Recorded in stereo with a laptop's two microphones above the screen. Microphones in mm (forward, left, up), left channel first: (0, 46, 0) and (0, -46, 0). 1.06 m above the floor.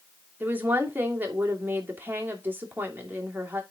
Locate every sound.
0.4 s a woman speaking: 20° right (ahead or behind), 2.5 m